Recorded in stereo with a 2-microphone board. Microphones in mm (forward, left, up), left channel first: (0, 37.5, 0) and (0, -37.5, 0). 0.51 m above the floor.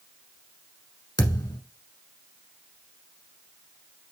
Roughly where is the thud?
Left.